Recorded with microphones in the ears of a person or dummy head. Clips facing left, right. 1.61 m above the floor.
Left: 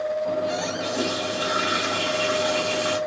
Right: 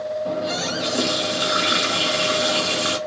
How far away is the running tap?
About 1.6 m.